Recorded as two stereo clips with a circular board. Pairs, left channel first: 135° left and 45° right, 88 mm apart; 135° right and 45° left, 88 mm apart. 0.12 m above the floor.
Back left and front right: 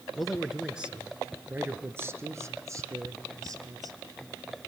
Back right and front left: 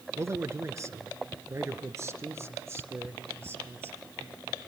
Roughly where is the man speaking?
Ahead left.